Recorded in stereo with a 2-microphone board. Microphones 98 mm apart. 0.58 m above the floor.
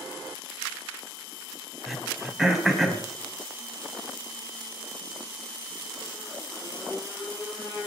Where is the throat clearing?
Centre (ahead or behind), 1.9 m.